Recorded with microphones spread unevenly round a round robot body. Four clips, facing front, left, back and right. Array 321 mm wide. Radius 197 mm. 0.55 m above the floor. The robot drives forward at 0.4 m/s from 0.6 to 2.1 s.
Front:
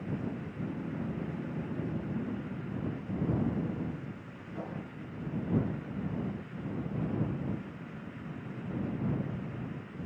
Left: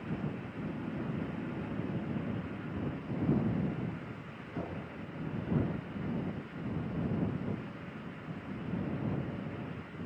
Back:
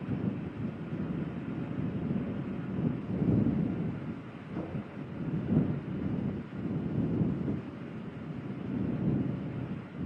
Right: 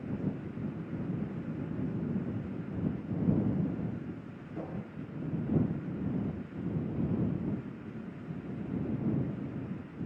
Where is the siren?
I don't hear a siren.